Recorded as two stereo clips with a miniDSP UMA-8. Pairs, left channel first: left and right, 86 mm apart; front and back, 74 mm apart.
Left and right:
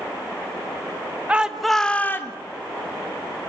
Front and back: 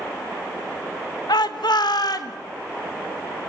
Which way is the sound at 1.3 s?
15° right.